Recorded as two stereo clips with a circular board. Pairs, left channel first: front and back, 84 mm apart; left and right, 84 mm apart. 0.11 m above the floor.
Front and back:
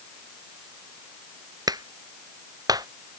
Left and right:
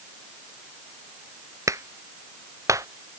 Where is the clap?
140° right.